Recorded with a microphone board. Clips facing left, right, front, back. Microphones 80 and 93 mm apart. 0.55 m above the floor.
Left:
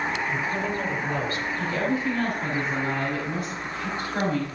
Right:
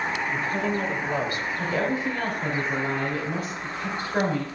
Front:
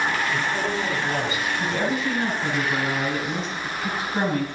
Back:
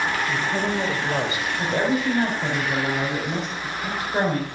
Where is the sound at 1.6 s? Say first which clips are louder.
Even, back 4 dB; 160° right, 3 m.